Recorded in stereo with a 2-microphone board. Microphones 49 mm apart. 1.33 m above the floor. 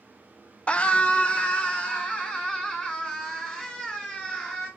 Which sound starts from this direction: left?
A scream, at 0.7 s.